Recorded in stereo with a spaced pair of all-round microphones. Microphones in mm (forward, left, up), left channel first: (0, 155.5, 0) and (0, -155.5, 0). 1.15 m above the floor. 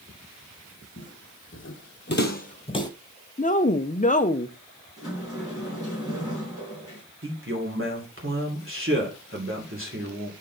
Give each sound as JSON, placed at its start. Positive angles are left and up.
{"t": 1.0, "sound": "footsteps", "side_deg": 40, "distance_m": 2.5}
{"t": 3.4, "sound": "a woman speaking", "side_deg": 25, "distance_m": 0.6}
{"t": 5.0, "sound": "a sliding door", "side_deg": -10, "distance_m": 6.0}
{"t": 7.2, "sound": "a man speaking", "side_deg": -40, "distance_m": 3.0}